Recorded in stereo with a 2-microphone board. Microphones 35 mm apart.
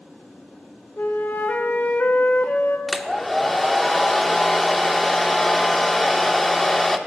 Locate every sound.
1.0 s a flute: 55° left (ahead or behind), 1.3 m
2.9 s a hair dryer: 5° left (ahead or behind), 0.8 m